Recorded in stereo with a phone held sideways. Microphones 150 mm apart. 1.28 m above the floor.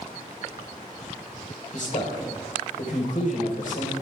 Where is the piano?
No piano in this recording.